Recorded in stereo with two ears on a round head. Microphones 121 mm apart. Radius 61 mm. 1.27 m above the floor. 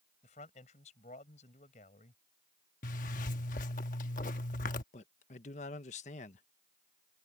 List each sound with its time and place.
0.2 s a man speaking: 55° left (ahead or behind)
2.8 s a zipper: 65° left (ahead or behind)
4.9 s a man speaking: 55° left (ahead or behind)